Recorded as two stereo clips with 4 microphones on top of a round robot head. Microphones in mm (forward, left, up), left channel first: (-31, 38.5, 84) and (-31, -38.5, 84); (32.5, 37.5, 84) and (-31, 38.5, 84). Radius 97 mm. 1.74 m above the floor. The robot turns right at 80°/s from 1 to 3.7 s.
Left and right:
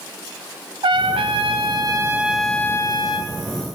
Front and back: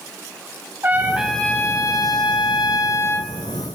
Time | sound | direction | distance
0.8 | a trumpet | 115° right | 0.7 m